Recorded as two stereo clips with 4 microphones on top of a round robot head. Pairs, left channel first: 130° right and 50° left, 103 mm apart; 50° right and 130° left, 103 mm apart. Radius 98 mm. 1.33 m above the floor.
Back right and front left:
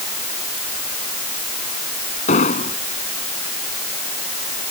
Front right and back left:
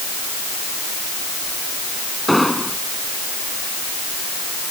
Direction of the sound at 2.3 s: 140° right.